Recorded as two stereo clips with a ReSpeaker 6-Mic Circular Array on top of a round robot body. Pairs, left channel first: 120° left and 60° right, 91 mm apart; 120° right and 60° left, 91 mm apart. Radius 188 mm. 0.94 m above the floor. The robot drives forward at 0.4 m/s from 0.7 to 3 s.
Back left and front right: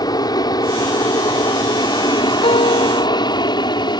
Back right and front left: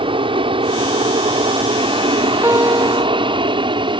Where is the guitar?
125° left.